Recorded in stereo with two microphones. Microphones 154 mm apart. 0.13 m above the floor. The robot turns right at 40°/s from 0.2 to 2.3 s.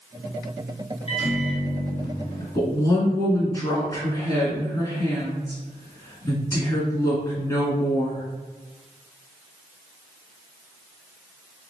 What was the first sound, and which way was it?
A microwave, 90° left.